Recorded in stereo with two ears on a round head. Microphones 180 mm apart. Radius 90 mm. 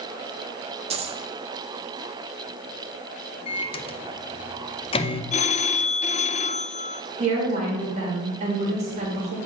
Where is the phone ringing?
35° left (ahead or behind), 0.5 m.